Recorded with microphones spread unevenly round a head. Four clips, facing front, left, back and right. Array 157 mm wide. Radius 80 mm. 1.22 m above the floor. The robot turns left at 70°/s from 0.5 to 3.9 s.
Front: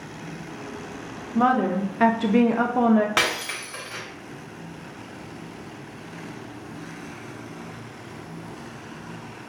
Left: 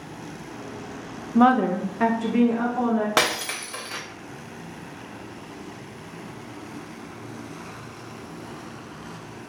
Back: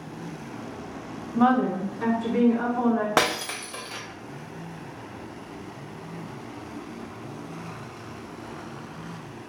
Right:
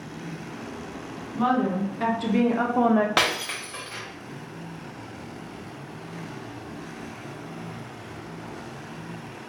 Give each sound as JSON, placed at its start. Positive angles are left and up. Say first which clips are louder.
{"t": 1.4, "sound": "a woman speaking", "louder": "left 5 dB, front 1 dB", "azimuth_deg": 70, "distance_m": 0.6}
{"t": 3.2, "sound": "breaking glass", "louder": "left 2 dB, back 2 dB", "azimuth_deg": 170, "distance_m": 0.6}